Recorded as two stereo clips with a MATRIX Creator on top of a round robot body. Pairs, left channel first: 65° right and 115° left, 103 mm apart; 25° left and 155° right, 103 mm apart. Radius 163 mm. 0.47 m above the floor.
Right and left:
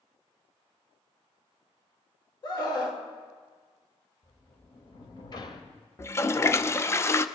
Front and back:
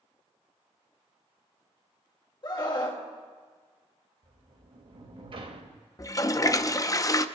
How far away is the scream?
About 2.5 m.